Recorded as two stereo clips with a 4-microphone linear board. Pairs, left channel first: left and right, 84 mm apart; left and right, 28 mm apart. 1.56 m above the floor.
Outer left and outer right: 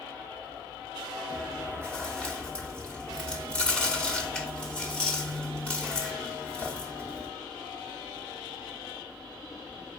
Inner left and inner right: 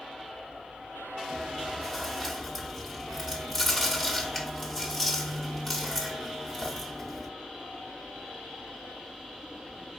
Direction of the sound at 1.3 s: 10° left (ahead or behind).